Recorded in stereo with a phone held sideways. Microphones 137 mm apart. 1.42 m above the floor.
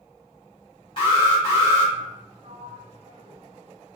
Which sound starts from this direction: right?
A sliding door, at 2.4 s.